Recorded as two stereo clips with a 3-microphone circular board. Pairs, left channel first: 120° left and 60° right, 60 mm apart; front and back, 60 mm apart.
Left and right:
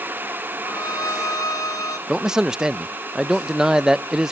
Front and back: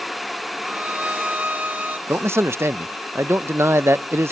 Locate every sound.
0.6 s a violin: 120° left, 2 m
2.1 s a man speaking: 140° right, 0.5 m